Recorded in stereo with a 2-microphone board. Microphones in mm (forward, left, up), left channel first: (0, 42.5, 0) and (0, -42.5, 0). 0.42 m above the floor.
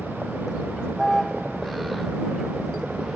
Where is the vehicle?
5° left (ahead or behind); by 3.2 s centre (ahead or behind).